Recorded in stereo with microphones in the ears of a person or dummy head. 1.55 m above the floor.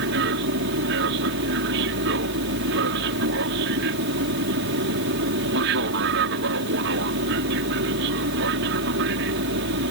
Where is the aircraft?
60° right (ahead or behind).